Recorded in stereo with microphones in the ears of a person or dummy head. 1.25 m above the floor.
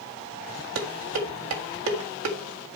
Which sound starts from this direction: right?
Dishes clattering, at 0.8 s.